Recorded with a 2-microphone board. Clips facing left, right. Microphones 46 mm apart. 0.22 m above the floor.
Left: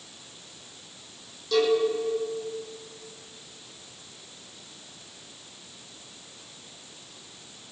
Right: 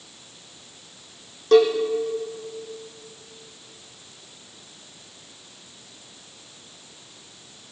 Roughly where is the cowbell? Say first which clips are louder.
Right 7 dB; right.